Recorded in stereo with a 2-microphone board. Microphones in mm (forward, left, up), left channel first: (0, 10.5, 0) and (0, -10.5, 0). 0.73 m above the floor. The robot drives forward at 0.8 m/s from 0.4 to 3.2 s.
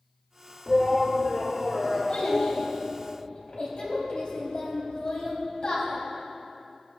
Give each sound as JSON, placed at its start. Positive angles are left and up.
{"t": 0.7, "sound": "a shout", "side_deg": -5, "distance_m": 1.1}
{"t": 2.1, "sound": "a child speaking", "side_deg": 75, "distance_m": 2.5}